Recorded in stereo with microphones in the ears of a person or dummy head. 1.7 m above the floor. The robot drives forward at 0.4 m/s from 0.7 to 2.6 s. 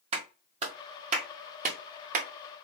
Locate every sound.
0.1 s a clap: 40° right (ahead or behind), 1.5 m; by 2.3 s 55° right (ahead or behind), 1.1 m